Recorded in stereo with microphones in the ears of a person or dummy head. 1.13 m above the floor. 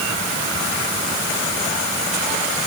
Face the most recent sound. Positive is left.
No sound to turn to.